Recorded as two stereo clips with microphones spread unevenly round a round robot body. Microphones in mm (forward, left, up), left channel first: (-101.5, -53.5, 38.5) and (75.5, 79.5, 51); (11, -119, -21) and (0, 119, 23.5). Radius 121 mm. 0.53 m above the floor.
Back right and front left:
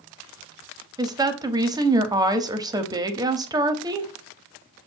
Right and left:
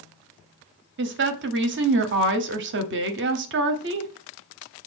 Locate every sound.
1.0 s a woman speaking: 105° left, 0.8 m